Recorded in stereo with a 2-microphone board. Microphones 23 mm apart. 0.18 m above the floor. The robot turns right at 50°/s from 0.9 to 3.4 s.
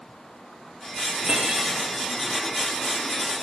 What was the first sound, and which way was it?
Cutlery clinking, 65° right (ahead or behind).